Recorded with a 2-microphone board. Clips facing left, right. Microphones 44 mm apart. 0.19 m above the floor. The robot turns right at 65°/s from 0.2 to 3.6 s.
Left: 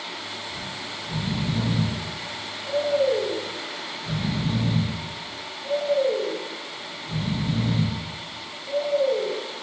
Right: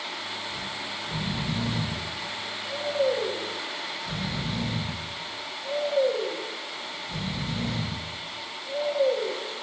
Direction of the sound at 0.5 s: 50° right (ahead or behind).